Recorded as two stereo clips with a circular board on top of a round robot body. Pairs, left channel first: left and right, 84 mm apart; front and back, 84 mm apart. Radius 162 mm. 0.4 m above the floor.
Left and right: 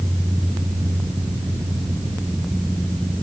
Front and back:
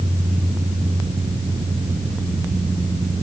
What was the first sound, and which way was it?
Only background noise.